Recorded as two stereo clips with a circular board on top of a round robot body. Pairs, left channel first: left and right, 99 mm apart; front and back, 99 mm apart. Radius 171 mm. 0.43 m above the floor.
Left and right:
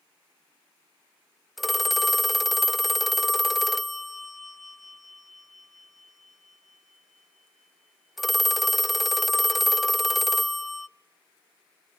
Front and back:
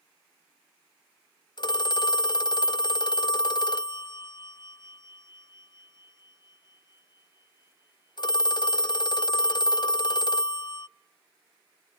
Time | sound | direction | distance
1.6 | a phone ringing | straight ahead | 0.5 m